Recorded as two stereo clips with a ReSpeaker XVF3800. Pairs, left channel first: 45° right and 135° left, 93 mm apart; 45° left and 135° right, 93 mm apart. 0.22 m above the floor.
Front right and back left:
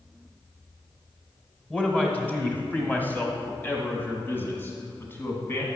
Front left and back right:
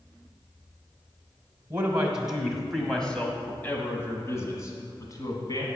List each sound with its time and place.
1.7 s a man speaking: 95° right, 1.7 m; by 5.7 s 15° left, 2.5 m